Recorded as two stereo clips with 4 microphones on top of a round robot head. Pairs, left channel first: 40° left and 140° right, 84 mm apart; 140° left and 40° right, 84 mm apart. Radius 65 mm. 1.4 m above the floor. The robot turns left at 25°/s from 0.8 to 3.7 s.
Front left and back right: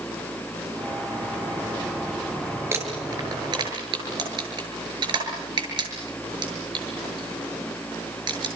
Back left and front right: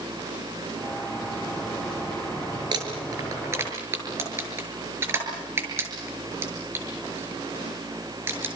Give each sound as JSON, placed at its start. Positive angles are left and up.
{"t": 2.7, "sound": "crumpling", "azimuth_deg": -80, "distance_m": 7.0}